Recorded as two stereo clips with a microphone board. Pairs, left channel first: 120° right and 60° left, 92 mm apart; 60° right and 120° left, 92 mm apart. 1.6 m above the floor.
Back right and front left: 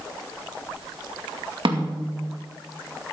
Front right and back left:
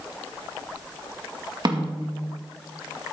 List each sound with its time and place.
1.6 s a snare drum: 80° left, 2 m